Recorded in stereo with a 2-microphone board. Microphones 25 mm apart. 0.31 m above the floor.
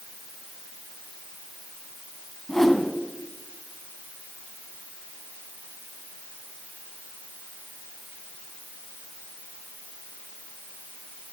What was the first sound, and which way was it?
A whoosh, 15° left (ahead or behind).